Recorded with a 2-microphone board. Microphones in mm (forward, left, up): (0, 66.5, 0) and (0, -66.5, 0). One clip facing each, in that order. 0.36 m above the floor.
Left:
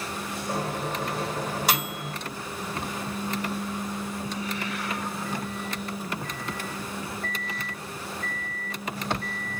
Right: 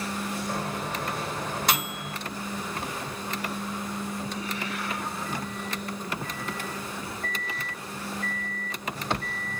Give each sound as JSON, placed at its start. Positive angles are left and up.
{"t": 0.5, "sound": "a microwave", "side_deg": 10, "distance_m": 1.3}